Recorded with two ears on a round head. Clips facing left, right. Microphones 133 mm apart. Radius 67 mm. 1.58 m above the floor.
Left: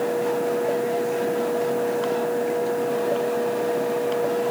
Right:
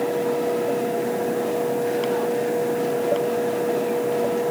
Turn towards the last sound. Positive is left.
No sound to turn to.